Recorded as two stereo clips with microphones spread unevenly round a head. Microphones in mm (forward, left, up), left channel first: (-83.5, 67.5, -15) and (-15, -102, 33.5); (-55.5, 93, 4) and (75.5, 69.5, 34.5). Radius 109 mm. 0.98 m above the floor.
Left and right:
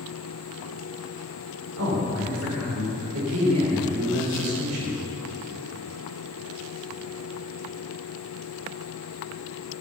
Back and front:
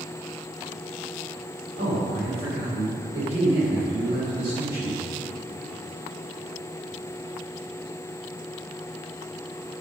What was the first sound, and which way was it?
A man speaking, 50° right.